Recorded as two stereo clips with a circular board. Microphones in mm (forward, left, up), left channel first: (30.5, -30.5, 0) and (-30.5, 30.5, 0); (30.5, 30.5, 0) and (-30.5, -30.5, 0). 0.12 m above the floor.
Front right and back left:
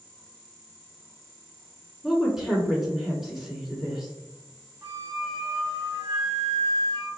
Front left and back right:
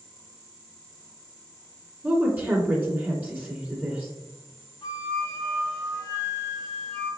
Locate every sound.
2.0 s a woman speaking: 150° right, 1.3 m
4.8 s a flute: 85° left, 1.6 m